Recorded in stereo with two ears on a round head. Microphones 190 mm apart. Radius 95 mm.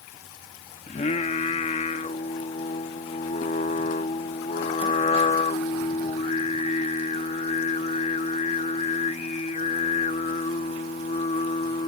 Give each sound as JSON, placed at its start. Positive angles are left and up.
{"t": 0.9, "sound": "singing", "side_deg": 30}